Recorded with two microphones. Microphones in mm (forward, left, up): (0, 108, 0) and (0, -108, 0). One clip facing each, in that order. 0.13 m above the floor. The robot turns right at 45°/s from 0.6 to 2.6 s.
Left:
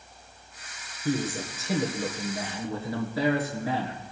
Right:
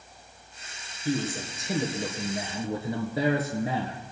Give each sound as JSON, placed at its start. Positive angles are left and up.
{"t": 1.1, "sound": "a man speaking", "azimuth_deg": 150, "distance_m": 1.7}